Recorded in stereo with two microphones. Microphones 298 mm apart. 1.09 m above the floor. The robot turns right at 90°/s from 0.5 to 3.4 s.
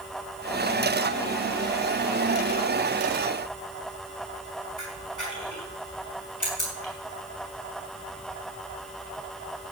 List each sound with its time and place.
4.8 s a camera shutter: 85° left, 6 m